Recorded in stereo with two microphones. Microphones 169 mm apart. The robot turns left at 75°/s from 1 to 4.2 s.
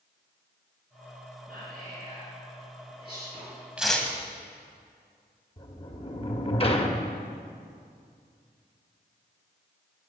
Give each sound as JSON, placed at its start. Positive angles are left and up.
{"t": 1.5, "sound": "whispering", "side_deg": -65, "distance_m": 3.0}
{"t": 3.8, "sound": "tearing paper", "side_deg": -5, "distance_m": 1.3}
{"t": 5.6, "sound": "a sliding door", "side_deg": 35, "distance_m": 0.9}